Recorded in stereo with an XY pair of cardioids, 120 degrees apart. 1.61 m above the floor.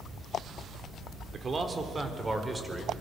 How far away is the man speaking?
About 4 m.